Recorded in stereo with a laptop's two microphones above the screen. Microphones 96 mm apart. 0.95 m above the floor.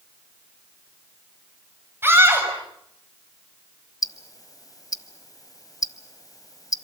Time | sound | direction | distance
2.0 | a scream | 25° right (ahead or behind) | 6.5 m
4.0 | ticking | 40° left (ahead or behind) | 1.3 m